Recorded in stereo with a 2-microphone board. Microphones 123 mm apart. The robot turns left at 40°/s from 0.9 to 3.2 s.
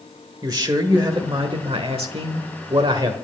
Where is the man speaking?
45° right, 1.2 m; by 3.1 s 135° right, 1.2 m.